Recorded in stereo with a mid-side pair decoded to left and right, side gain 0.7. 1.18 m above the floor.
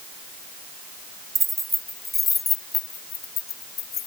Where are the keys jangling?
20° right; by 4.1 s 45° left.